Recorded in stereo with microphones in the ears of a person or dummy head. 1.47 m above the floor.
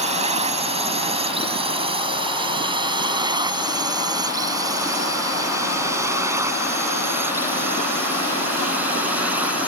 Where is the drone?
30° right (ahead or behind); by 9.7 s 5° right (ahead or behind).